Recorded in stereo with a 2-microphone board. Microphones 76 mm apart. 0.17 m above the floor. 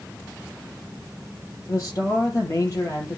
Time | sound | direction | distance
1.7 | a man speaking | 45° left (ahead or behind) | 4 m